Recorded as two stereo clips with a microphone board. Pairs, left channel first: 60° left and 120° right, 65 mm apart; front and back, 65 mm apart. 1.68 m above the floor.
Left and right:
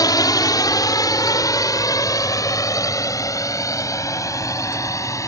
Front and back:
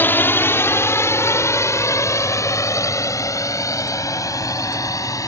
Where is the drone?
55° left; by 5.3 s 30° left.